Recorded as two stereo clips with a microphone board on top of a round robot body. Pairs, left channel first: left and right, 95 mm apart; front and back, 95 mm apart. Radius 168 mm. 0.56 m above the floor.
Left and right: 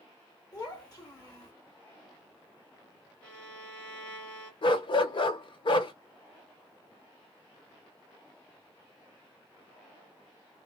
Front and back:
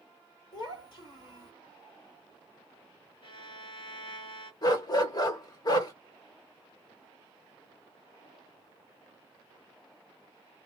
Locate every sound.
0.5 s a child speaking: 30° left, 1.7 m
3.2 s a violin: 20° left, 1.9 m
4.6 s a dog barking: 50° left, 0.8 m